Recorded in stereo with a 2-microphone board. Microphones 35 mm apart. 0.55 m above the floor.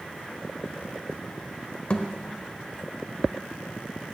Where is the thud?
35° left (ahead or behind), 0.8 m.